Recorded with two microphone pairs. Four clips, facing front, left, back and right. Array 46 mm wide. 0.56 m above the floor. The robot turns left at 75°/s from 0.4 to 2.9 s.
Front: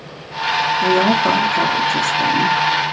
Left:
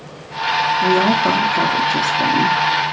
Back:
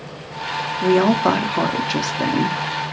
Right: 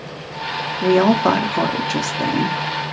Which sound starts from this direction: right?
A woman speaking, at 0.8 s.